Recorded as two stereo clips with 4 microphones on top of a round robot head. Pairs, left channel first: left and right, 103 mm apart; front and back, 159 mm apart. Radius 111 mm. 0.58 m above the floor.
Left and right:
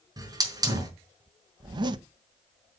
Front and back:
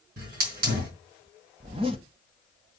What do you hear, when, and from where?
0.2 s a hiss: 145° right, 4.5 m
1.6 s a zipper: 120° right, 0.6 m